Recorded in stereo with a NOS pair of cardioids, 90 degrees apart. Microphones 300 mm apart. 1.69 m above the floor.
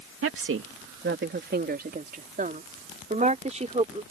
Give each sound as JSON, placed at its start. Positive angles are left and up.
{"t": 0.2, "sound": "a woman speaking", "azimuth_deg": -45}